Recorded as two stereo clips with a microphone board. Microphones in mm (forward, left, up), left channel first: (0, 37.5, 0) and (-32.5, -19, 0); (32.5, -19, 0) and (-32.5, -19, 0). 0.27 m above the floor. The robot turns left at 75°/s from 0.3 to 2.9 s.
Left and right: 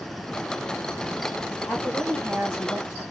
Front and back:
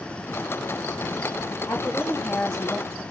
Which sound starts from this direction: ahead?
A woman speaking, at 1.7 s.